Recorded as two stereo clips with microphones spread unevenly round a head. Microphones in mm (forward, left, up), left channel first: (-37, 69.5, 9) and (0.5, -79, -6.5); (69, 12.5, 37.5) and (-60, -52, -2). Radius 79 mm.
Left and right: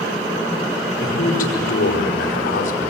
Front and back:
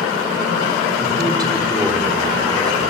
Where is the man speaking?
140° left, 5 m.